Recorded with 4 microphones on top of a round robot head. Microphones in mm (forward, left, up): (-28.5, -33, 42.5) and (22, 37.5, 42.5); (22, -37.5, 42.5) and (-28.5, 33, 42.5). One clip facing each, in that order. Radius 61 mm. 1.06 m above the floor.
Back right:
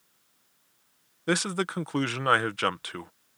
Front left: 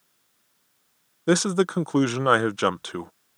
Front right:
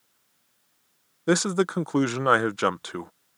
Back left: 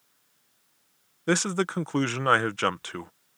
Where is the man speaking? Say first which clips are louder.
Front left 7 dB, front right 3 dB; 10° left.